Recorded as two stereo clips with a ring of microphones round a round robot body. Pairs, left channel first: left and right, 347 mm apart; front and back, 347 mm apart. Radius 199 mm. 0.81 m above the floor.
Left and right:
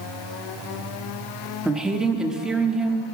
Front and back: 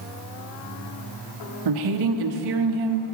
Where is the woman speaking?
Straight behind, 1.0 m.